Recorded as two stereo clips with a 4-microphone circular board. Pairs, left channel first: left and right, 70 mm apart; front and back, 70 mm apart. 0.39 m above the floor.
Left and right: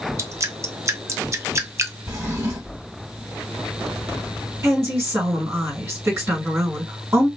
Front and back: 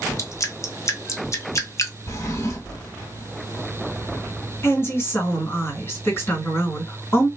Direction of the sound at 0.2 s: 45° right.